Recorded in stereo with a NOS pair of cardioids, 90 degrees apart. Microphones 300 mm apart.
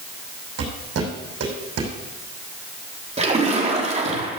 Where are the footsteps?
60° right, 5.5 m.